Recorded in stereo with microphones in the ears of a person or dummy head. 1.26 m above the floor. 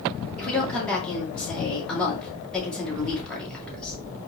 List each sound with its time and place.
0.4 s a woman speaking: 5° left (ahead or behind), 1.9 m